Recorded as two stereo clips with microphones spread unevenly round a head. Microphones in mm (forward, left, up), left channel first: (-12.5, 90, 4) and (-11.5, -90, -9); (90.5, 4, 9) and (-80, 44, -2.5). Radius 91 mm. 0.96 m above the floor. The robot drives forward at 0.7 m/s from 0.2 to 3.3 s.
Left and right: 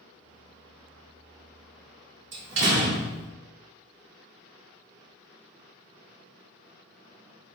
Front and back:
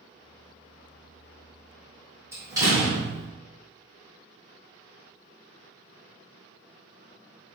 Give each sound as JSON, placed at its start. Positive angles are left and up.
{"t": 2.3, "sound": "a door slam", "azimuth_deg": -115, "distance_m": 2.0}